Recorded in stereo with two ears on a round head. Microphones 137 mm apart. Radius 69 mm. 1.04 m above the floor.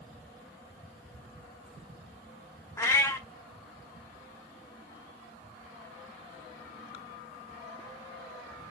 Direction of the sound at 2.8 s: 20° left (ahead or behind).